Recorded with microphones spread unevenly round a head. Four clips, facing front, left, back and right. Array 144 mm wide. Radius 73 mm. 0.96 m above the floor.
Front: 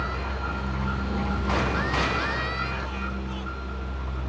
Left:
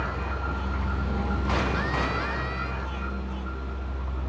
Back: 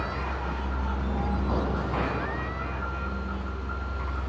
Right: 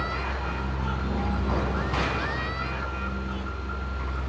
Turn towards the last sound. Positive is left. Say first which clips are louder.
# right 1 dB, front 1 dB
turn(degrees=-80)